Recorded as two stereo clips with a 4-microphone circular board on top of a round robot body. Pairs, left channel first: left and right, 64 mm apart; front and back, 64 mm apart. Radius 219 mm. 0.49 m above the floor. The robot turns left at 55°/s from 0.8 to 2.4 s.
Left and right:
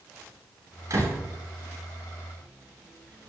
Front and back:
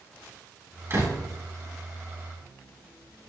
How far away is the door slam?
About 9 m.